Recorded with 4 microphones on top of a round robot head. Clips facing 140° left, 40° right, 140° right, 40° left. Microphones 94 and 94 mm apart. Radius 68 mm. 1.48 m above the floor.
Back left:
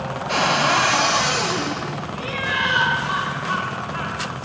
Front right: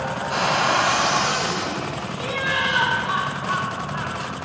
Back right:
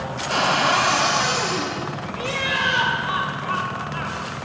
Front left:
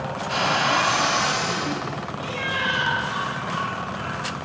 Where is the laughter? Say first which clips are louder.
Front right 1 dB, back right 5 dB; 130° right, 2.0 m.